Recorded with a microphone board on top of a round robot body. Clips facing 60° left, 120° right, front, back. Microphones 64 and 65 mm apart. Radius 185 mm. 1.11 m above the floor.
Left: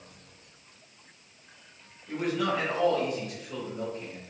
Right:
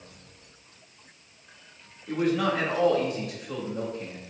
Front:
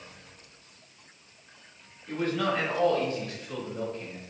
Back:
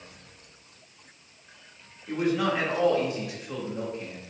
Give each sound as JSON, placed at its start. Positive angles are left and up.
{"t": 2.1, "sound": "a man speaking", "azimuth_deg": -110, "distance_m": 3.0}